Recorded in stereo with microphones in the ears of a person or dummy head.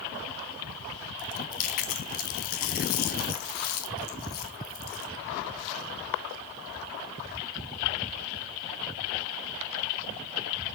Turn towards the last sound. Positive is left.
turn(degrees=50)  # may be behind; listen again after turning